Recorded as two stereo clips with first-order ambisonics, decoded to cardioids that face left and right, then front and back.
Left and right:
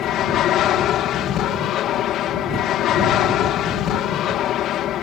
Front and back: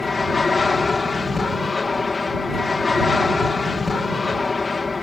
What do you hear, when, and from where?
0.0 s an aircraft: 70° left